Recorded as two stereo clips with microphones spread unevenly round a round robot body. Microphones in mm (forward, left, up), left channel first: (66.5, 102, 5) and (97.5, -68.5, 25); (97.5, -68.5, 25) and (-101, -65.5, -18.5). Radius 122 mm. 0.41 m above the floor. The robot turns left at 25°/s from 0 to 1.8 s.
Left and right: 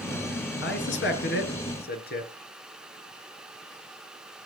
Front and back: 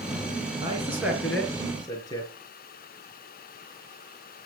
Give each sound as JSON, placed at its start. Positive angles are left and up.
{"t": 0.6, "sound": "a man speaking", "azimuth_deg": 105, "distance_m": 5.5}